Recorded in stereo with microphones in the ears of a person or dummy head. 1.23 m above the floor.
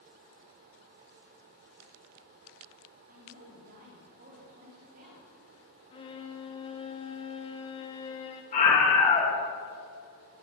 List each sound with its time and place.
3.1 s a woman speaking: 45° right (ahead or behind), 3 m
5.9 s a violin: 25° left (ahead or behind), 0.6 m
8.5 s a scream: 40° left (ahead or behind), 2.5 m